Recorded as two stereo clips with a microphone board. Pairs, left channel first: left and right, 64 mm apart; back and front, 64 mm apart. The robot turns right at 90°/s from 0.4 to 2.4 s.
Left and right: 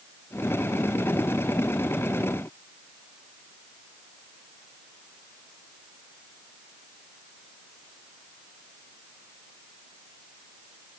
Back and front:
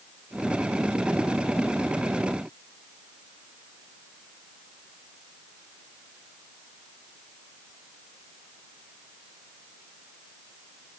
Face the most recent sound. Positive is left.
No sound to turn to.